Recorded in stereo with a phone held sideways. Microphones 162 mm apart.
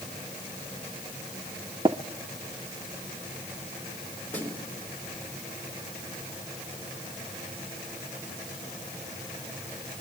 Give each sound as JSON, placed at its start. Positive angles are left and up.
{"t": 1.9, "sound": "tapping", "side_deg": -30, "distance_m": 0.6}
{"t": 4.3, "sound": "a snare drum", "side_deg": 10, "distance_m": 4.0}